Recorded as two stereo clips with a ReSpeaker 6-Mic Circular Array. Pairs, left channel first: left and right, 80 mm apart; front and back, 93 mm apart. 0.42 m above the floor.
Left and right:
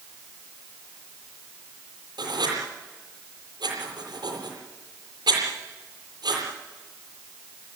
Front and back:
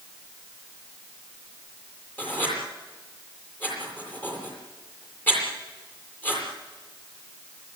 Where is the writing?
70° right, 8.5 m.